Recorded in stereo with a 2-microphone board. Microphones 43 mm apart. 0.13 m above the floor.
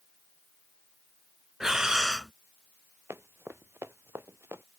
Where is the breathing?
15° right (ahead or behind).